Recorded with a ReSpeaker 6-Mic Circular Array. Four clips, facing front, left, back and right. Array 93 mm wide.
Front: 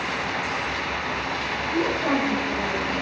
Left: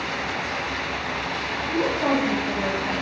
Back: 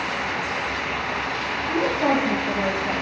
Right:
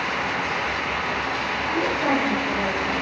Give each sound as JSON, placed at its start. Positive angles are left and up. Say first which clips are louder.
{"t": 1.7, "sound": "a woman speaking", "louder": "left 1 dB, back 3 dB", "azimuth_deg": 170, "distance_m": 2.0}